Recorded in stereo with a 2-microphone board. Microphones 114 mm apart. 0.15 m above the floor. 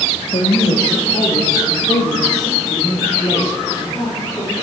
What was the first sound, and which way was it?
A woman speaking, 60° left (ahead or behind).